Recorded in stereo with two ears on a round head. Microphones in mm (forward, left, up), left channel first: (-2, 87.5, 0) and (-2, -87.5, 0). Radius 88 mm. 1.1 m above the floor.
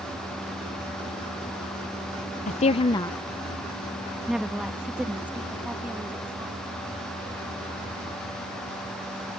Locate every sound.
2.5 s a woman speaking: 35° left (ahead or behind); by 6.6 s 10° right (ahead or behind)